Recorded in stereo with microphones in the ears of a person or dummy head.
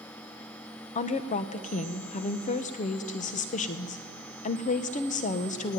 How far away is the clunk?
No clunk in this recording.